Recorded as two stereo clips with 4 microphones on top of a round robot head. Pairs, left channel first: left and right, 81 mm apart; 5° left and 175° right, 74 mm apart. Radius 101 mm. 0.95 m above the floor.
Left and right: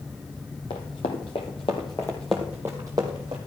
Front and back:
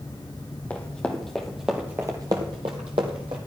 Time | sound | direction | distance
0.7 | running footsteps | 75° left | 1.6 m